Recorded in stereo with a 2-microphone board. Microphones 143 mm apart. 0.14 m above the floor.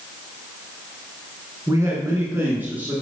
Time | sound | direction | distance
1.7 | a man speaking | 25° right (ahead or behind) | 1.8 m